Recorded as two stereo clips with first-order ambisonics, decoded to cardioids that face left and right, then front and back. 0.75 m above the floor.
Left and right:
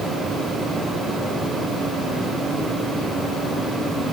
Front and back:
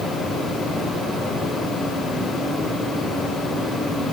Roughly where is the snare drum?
I don't hear a snare drum.